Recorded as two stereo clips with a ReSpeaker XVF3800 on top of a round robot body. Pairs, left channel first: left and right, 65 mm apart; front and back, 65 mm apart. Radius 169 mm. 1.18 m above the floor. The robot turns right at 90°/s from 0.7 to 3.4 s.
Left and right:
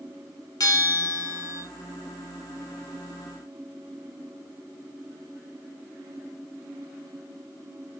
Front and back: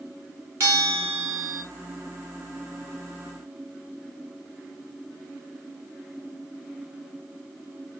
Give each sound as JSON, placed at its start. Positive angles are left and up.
{"t": 0.6, "sound": "a bell", "azimuth_deg": 125, "distance_m": 0.7}